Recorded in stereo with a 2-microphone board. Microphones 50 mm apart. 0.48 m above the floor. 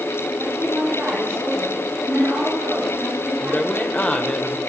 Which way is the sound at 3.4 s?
25° left (ahead or behind).